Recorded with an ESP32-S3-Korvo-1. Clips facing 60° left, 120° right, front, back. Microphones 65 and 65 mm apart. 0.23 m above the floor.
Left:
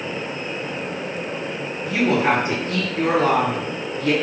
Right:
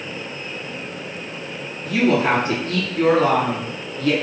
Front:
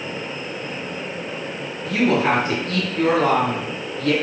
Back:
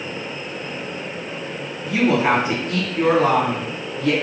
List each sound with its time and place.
1.9 s a woman speaking: 110° left, 1.9 m